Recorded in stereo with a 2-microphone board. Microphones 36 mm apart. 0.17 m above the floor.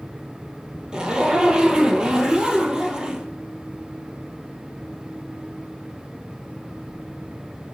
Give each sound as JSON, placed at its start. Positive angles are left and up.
{"t": 0.9, "sound": "a zipper", "side_deg": -20, "distance_m": 1.0}